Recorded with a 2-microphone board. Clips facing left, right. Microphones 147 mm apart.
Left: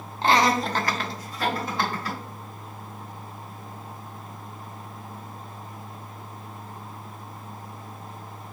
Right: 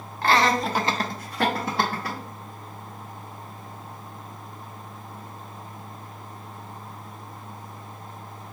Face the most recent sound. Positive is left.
turn(degrees=-70)  # may be behind; listen again after turning